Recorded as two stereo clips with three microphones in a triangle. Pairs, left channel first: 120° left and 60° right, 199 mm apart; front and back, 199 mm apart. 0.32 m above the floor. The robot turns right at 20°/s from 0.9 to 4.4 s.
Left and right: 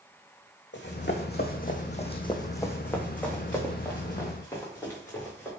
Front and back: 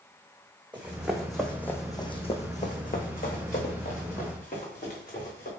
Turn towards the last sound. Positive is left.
turn(degrees=40)